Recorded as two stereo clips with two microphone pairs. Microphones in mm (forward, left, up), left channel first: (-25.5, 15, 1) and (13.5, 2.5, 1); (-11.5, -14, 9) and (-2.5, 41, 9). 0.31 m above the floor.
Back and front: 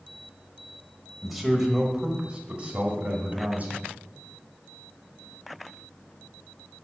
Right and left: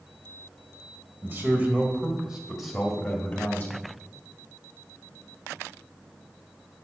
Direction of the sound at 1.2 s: 75° left.